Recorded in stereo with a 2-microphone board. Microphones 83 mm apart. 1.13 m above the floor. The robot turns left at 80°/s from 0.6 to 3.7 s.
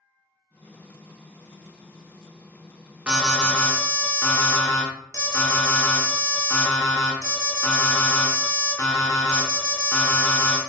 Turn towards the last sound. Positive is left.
turn(degrees=145)